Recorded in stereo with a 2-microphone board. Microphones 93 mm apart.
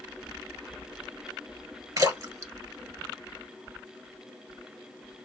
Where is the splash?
40° right (ahead or behind), 1.1 m.